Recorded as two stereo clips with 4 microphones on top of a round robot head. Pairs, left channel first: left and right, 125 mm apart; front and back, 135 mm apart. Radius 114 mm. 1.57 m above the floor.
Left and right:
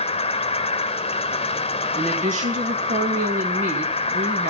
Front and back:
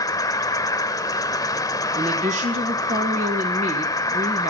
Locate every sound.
0.0 s an insect: 65° left, 0.9 m
1.9 s a woman speaking: 130° right, 1.6 m